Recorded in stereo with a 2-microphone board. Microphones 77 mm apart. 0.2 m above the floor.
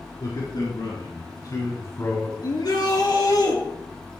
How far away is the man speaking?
About 3 m.